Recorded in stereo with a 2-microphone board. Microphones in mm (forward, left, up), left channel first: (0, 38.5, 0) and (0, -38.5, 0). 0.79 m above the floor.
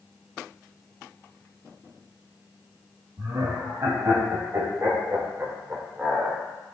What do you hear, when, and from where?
3.2 s laughter: 45° right (ahead or behind), 6 m; by 6.4 s 5° right (ahead or behind), 2 m